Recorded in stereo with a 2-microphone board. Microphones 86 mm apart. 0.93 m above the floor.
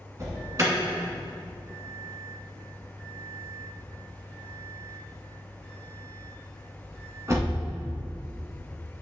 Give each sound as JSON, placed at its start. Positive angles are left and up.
{"t": 0.2, "sound": "an alarm", "side_deg": -40, "distance_m": 1.9}